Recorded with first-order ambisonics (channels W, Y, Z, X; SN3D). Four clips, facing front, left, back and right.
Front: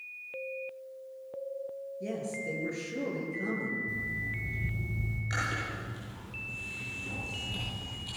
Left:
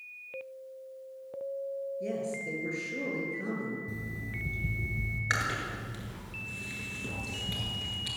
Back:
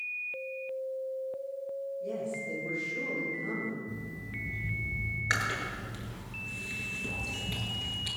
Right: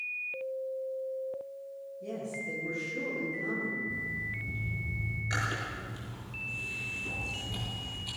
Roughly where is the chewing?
Behind left.